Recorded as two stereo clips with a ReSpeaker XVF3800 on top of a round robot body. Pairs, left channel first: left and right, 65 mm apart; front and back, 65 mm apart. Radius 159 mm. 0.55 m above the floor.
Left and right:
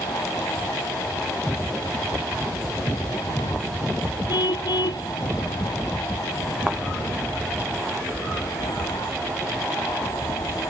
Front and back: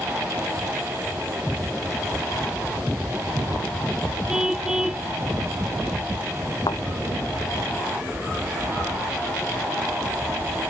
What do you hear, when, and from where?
4.3 s a car horn: 100° left
6.7 s a thud: 15° right